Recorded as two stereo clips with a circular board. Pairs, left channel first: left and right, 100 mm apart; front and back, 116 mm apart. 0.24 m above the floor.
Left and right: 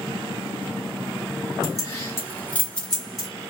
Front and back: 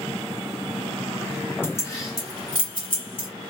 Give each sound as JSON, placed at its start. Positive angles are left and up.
{"t": 1.6, "sound": "keys jangling", "azimuth_deg": 60, "distance_m": 1.2}